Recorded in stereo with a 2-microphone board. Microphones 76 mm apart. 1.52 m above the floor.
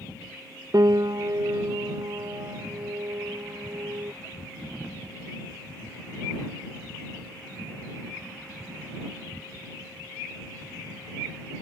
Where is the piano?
55° right (ahead or behind).